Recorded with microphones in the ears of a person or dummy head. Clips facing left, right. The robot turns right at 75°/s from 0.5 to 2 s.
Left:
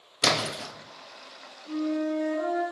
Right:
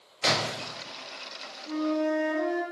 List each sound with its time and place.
0.2 s a splash: 60° left (ahead or behind), 0.7 m; by 0.7 s 55° left (ahead or behind), 0.7 m
1.6 s a flute: 60° right (ahead or behind), 2.5 m; by 2.6 s 85° right, 2.5 m